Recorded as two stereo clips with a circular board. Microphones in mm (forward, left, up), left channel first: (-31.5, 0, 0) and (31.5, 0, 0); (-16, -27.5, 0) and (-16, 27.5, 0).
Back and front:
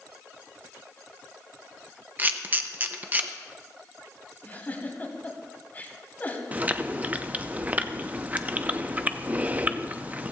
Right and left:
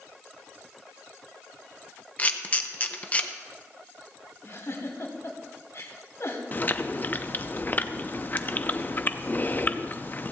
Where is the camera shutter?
45° right, 0.8 m.